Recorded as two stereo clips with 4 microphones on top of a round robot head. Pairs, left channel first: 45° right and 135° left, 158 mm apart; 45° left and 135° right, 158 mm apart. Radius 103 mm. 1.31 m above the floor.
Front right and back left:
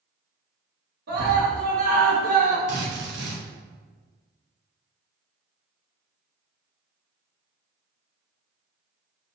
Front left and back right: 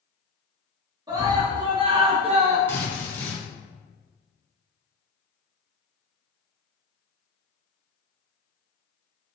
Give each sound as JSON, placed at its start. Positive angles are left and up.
{"t": 1.1, "sound": "a scream", "azimuth_deg": 155, "distance_m": 2.5}
{"t": 2.7, "sound": "a drill", "azimuth_deg": 120, "distance_m": 2.5}